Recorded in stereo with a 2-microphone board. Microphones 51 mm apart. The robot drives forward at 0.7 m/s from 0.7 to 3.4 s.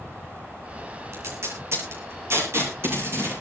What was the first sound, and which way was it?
Tape being pulled, 60° right (ahead or behind).